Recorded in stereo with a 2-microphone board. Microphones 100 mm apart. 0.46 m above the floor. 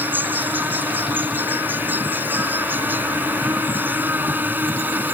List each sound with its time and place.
0.0 s an insect: 20° right (ahead or behind)